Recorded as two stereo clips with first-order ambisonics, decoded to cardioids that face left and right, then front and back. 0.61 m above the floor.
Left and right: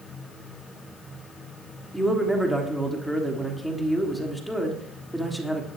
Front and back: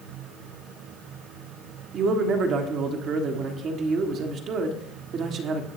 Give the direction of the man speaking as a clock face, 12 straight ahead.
6 o'clock.